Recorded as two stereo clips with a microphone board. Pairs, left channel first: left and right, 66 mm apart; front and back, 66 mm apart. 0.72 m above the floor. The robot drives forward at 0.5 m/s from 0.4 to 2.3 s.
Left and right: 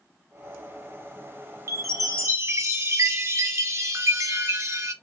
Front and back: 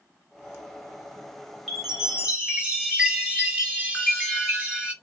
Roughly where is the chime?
Right.